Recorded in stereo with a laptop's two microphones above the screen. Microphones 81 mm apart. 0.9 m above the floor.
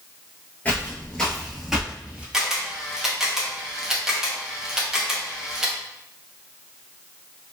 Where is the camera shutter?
5° right (ahead or behind), 0.7 m.